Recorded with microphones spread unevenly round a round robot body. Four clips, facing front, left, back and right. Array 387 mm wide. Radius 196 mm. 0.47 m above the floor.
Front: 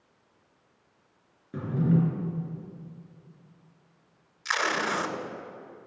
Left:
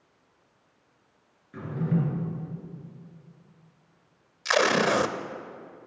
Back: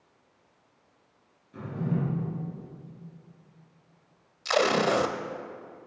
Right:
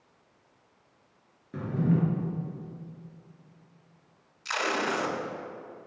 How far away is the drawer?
About 3 m.